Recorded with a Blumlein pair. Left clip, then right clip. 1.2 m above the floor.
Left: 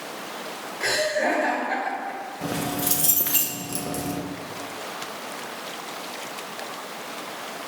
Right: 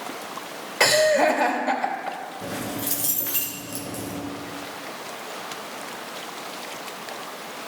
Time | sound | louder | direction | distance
0.8 | laughter | right 6 dB | 45° right | 3 m
2.4 | keys jangling | left 5 dB | 15° left | 1.3 m